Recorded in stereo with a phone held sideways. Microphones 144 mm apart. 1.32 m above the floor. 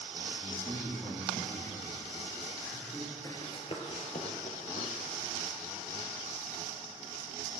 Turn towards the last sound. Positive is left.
turn(degrees=65)  # may be behind; listen again after turning